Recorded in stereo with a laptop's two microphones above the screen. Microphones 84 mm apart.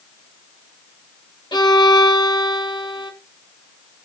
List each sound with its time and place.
1.5 s a violin: 70° left (ahead or behind), 1.6 m